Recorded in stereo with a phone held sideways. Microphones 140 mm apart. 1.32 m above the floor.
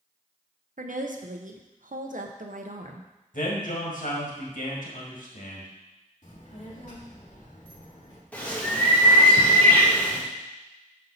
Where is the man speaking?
75° left (ahead or behind), 1.7 m.